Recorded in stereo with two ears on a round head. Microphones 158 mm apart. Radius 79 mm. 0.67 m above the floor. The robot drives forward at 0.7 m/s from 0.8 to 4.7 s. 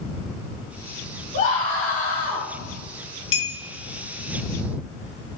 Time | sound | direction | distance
1.3 | a scream | 40° left (ahead or behind) | 1.5 m
3.3 | a clink | 75° left (ahead or behind) | 1.8 m